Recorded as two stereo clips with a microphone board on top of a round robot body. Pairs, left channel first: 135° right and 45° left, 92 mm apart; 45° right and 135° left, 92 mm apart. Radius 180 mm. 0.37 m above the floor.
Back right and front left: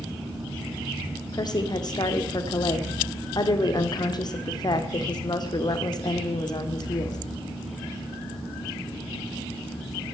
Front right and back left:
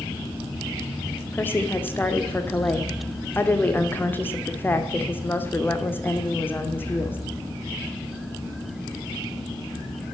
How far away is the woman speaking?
About 1.3 m.